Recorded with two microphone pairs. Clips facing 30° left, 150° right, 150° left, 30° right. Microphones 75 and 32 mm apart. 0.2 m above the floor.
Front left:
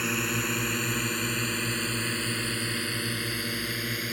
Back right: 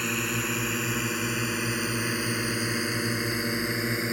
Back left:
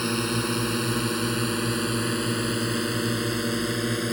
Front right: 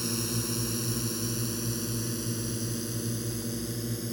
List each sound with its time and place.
0.0 s a drone: 115° left; by 4.1 s 145° left